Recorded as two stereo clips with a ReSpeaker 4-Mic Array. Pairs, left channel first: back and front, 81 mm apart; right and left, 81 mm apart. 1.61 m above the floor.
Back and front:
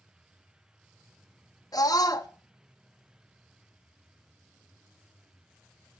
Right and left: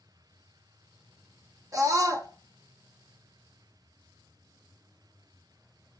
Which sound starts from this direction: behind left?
A scream, at 1.7 s.